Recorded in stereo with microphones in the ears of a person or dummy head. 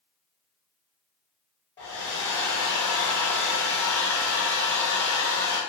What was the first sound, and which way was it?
A hair dryer, 25° left (ahead or behind).